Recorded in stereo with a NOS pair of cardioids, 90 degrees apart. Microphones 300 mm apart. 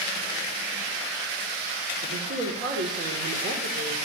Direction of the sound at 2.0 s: 45° right.